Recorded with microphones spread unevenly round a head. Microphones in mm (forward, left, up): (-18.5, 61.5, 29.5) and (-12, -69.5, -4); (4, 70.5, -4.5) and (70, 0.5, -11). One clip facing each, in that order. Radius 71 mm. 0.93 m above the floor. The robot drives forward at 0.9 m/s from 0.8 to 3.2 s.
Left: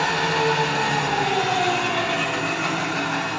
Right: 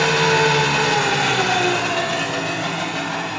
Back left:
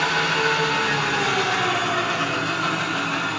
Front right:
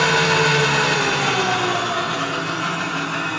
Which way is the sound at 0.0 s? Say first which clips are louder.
Right 5 dB, front right 4 dB; 70° right.